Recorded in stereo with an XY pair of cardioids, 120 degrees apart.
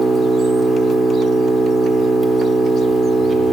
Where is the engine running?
25° right, 1.1 m.